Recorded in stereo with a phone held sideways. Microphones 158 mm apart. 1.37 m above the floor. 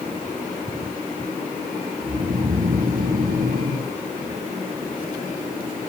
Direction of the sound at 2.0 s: 75° right (ahead or behind).